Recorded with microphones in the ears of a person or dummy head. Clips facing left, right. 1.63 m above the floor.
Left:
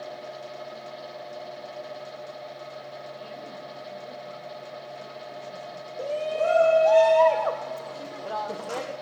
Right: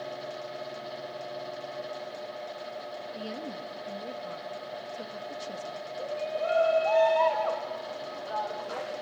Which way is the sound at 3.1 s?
70° right (ahead or behind).